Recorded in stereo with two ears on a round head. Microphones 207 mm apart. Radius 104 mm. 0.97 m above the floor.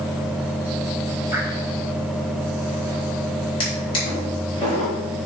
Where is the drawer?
20° left (ahead or behind), 3 m.